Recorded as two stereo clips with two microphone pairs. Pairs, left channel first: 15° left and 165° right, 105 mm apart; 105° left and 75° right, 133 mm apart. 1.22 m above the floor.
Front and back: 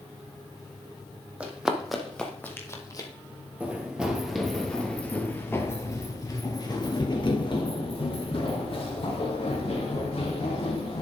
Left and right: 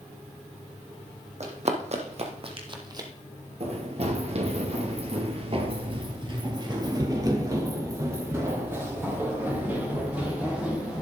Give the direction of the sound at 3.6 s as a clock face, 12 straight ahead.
3 o'clock.